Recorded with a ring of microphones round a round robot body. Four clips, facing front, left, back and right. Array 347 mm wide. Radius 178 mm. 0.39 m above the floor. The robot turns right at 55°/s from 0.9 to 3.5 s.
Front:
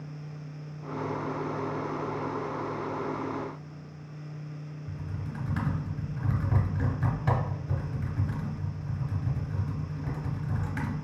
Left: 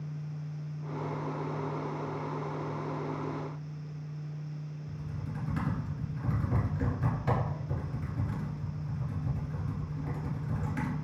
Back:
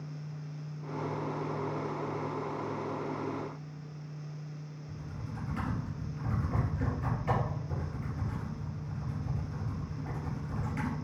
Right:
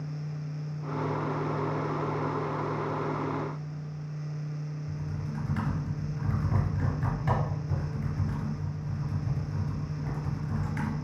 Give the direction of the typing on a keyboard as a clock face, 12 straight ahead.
12 o'clock.